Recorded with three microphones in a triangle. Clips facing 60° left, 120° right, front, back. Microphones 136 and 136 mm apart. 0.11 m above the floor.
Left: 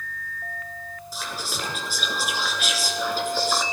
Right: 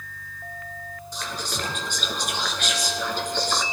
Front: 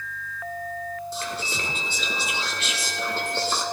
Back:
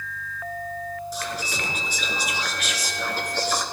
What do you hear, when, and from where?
1.1 s whispering: 20° right, 1.7 m